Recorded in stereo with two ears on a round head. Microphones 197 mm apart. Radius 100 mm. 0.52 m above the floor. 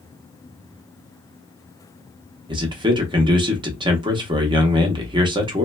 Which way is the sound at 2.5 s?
20° right (ahead or behind).